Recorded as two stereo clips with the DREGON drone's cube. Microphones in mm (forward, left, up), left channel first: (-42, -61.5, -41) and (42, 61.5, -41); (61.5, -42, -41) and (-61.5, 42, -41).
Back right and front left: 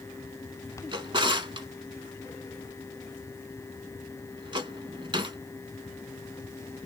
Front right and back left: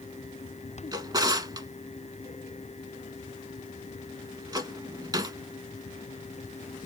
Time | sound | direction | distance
0.9 | a drawer | 95° left | 0.9 m